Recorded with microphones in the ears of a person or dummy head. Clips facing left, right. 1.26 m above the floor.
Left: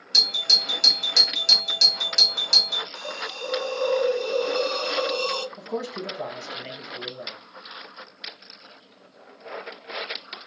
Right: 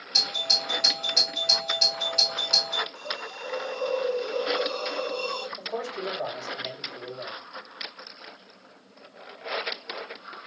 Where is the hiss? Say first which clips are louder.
Left 3 dB; 85° left, 0.5 m.